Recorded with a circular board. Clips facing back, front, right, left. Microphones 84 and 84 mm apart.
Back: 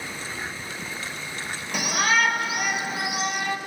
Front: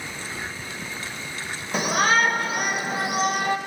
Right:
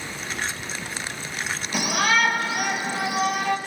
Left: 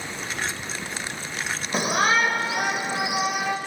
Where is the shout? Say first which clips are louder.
Front 3 dB, left 1 dB; 45° left, 2.0 m; by 3.6 s 15° left, 2 m.